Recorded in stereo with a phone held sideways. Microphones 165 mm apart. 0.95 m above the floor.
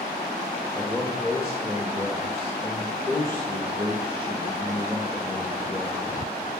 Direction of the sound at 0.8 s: 15° left (ahead or behind).